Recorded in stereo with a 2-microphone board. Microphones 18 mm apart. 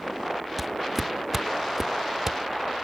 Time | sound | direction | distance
0.6 | footsteps | centre (ahead or behind) | ?